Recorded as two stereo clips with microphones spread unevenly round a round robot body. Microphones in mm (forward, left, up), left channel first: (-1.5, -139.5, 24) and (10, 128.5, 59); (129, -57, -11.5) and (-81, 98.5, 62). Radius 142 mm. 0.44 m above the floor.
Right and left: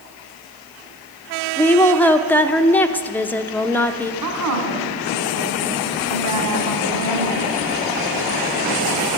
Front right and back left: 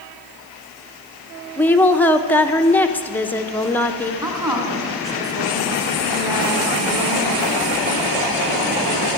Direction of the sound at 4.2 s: 65° left.